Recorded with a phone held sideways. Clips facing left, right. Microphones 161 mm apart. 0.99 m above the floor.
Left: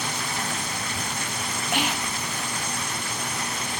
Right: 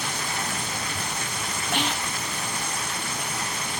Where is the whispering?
10° left (ahead or behind), 1.6 m.